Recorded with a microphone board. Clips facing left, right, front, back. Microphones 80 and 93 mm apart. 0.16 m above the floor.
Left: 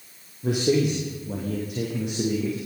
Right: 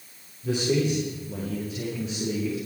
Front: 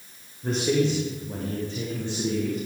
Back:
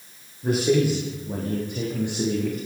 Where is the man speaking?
100° left, 8 m; by 2.6 s 110° left, 10 m.